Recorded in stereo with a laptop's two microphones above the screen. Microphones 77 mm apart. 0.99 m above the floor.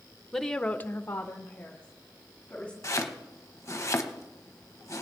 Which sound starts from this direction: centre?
A woman speaking, at 0.3 s.